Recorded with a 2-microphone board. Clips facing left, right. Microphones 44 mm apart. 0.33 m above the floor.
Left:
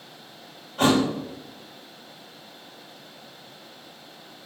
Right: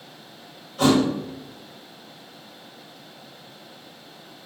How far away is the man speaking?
No man speaking in this recording.